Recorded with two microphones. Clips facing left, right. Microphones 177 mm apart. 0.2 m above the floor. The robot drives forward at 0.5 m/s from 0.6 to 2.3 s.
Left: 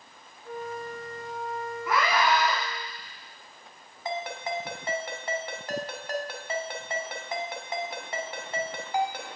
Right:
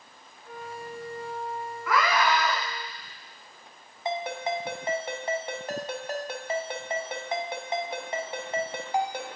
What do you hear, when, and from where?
0.5 s a flute: 45° left (ahead or behind), 0.7 m; by 2.9 s 55° left (ahead or behind), 0.6 m
1.9 s a scream: 30° left (ahead or behind), 1.6 m; by 2.6 s 35° left (ahead or behind), 1.4 m
4.0 s a ringtone: 20° right (ahead or behind), 0.9 m